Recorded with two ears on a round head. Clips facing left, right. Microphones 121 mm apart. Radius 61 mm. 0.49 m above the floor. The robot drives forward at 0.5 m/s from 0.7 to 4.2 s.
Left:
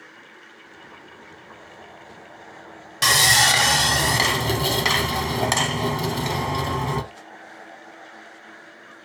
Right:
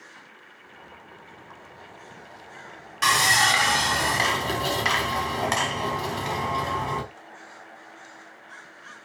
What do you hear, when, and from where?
3.0 s sawing: 35° left (ahead or behind), 1.0 m